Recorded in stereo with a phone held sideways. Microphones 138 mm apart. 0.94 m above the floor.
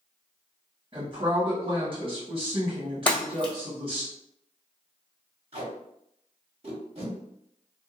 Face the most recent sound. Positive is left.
turn(degrees=-45)  # may be behind; listen again after turning